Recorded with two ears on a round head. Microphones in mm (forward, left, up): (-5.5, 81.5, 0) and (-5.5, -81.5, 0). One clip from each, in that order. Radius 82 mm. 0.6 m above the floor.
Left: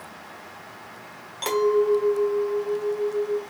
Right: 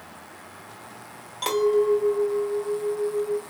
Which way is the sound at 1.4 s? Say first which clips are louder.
Even; 5° left (ahead or behind).